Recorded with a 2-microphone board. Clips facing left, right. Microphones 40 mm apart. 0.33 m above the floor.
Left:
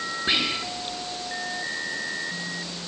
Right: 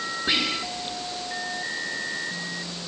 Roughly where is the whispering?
Centre.